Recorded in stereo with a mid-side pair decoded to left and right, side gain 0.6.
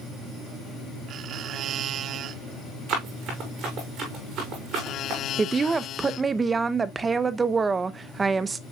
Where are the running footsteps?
55° right, 5.5 m.